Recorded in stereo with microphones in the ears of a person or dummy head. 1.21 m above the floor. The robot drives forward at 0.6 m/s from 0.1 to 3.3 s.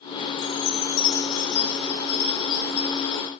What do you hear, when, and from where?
0.4 s a chime: 55° left (ahead or behind), 0.9 m; by 3.3 s 20° left (ahead or behind), 2.5 m